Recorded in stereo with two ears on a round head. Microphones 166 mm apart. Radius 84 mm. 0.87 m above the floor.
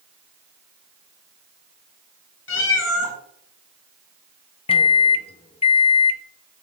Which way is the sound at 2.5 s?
75° left (ahead or behind).